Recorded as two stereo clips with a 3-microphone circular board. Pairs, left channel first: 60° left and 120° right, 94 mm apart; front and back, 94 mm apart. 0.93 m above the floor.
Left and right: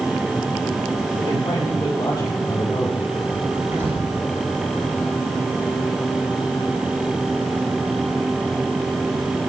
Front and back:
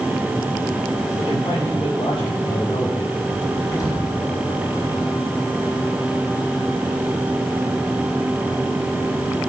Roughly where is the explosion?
Ahead right.